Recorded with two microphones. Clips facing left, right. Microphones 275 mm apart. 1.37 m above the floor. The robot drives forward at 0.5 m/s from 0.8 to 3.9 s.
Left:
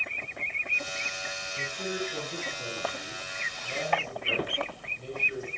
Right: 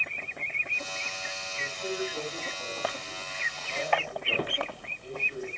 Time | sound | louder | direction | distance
1.6 | a man speaking | right 1 dB | 70° left (ahead or behind) | 8.5 m